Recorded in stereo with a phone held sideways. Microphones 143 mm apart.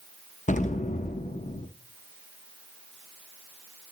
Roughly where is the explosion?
Left.